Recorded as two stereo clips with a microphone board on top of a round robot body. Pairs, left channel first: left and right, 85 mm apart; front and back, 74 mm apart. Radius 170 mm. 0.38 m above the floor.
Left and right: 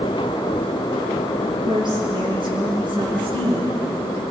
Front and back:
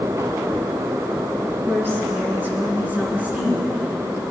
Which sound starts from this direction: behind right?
A woman speaking, at 1.4 s.